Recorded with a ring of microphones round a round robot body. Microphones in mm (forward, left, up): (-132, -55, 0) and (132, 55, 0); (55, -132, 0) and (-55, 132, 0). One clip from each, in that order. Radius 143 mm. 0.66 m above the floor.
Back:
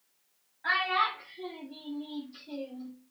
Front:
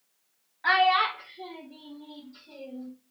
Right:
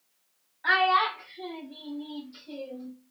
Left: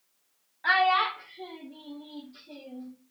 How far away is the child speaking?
About 0.8 m.